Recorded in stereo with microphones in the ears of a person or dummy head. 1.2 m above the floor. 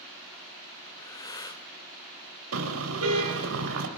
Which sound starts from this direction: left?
Breathing, at 0.9 s.